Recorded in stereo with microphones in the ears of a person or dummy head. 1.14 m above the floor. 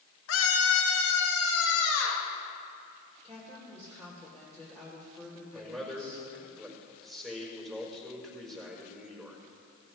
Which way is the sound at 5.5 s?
5° left (ahead or behind).